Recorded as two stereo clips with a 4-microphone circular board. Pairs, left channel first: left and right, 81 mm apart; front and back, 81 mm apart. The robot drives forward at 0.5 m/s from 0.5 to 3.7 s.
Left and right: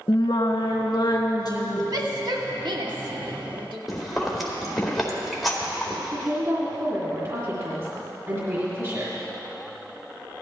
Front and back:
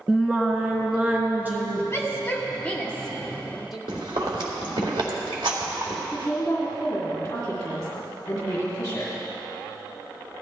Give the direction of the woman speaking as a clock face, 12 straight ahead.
2 o'clock.